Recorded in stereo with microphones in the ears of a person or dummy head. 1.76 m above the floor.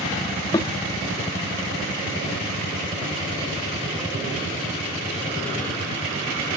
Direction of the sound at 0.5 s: 20° left (ahead or behind).